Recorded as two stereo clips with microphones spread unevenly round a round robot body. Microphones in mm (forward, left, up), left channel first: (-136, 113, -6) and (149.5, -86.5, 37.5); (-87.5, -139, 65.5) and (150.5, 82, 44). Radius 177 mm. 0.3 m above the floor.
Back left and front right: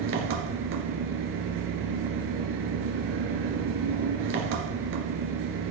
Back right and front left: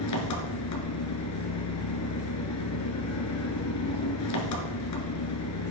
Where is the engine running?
95° right, 1.6 m.